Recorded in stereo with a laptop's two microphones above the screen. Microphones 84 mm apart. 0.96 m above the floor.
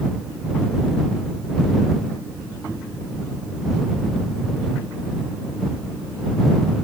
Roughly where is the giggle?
No giggle in this recording.